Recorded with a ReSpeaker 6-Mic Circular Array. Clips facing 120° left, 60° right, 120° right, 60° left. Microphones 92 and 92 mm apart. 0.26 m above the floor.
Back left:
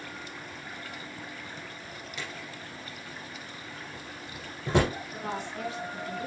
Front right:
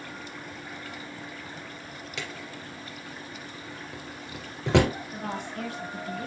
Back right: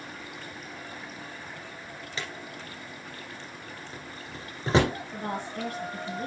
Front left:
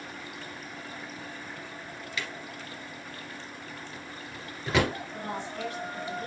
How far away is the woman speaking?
About 4.5 m.